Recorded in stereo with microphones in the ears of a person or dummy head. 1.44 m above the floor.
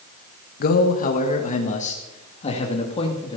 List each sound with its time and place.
0.6 s a man speaking: 45° left (ahead or behind), 1.4 m; by 3.4 s 25° left (ahead or behind), 2.5 m